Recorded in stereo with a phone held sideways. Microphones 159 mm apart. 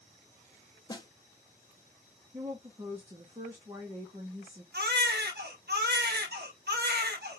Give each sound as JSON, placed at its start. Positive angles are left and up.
{"t": 0.9, "sound": "a snare drum", "side_deg": 25, "distance_m": 0.7}
{"t": 2.3, "sound": "a woman speaking", "side_deg": -25, "distance_m": 0.8}
{"t": 4.7, "sound": "a baby crying", "side_deg": -85, "distance_m": 0.9}